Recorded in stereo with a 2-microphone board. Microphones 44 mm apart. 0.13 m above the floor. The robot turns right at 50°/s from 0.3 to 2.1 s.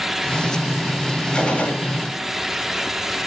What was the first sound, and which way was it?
A gunshot, 20° left (ahead or behind).